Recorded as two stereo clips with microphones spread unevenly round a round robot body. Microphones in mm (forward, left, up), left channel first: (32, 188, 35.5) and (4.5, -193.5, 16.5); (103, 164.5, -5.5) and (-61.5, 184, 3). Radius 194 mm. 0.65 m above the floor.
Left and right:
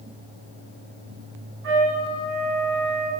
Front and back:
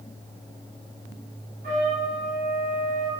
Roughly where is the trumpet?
Behind right.